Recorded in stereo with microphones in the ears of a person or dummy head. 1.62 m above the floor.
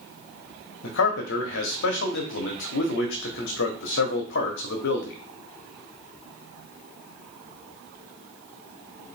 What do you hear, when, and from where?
0.8 s a man speaking: 55° left (ahead or behind), 1.0 m